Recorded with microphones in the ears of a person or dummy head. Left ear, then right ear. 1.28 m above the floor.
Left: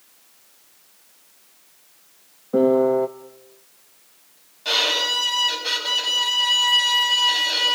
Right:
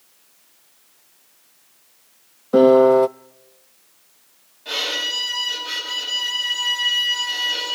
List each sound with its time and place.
2.5 s a piano: 60° right (ahead or behind), 0.5 m
4.7 s a violin: 35° left (ahead or behind), 9 m